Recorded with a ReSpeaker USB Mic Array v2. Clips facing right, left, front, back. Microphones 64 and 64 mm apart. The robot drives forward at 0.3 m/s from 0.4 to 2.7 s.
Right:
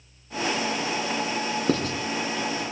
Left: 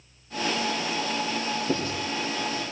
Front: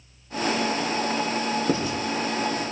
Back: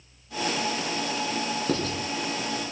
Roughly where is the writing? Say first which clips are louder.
Right 5 dB, front 3 dB; right.